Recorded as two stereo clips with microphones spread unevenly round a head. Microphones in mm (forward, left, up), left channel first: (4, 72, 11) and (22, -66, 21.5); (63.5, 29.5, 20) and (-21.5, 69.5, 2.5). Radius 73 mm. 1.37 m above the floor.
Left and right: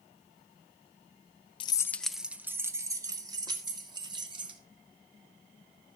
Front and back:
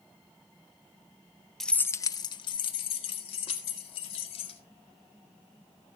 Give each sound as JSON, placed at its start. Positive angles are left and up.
{"t": 1.6, "sound": "keys jangling", "azimuth_deg": 50, "distance_m": 0.7}